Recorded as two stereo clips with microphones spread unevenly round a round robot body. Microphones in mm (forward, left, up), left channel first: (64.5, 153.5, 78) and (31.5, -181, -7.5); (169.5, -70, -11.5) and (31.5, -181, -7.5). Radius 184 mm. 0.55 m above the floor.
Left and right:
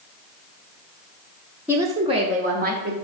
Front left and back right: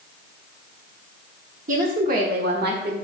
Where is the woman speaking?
165° right, 1.1 m; by 2.9 s 140° right, 1.5 m.